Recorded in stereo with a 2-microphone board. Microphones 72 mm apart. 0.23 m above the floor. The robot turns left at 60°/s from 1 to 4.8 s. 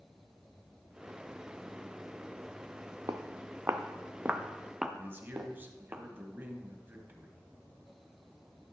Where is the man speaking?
30° right (ahead or behind), 1.2 m.